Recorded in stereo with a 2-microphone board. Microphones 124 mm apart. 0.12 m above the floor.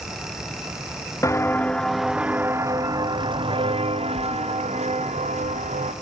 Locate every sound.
1.2 s footsteps: 25° left (ahead or behind), 1.1 m; by 5.9 s 70° right (ahead or behind), 2.5 m